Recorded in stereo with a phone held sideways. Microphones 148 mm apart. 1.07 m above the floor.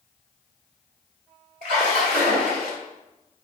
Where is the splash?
70° right (ahead or behind), 1.5 m.